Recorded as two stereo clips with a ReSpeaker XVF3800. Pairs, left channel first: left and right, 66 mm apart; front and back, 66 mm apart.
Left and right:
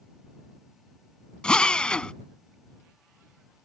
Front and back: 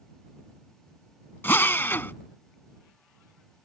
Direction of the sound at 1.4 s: 25° left.